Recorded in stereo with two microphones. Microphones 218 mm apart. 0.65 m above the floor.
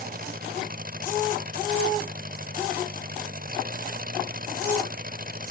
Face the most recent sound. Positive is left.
turn(degrees=-45)  # may be behind; listen again after turning